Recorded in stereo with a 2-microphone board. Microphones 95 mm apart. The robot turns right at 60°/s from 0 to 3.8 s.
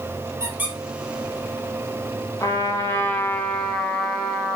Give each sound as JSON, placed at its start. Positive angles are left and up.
{"t": 0.4, "sound": "a squeak", "side_deg": -30, "distance_m": 2.5}
{"t": 2.4, "sound": "a trumpet", "azimuth_deg": 95, "distance_m": 1.7}